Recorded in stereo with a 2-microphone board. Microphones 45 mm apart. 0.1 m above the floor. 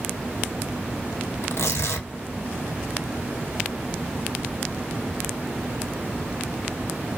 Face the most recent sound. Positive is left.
turn(degrees=65)  # may be behind; listen again after turning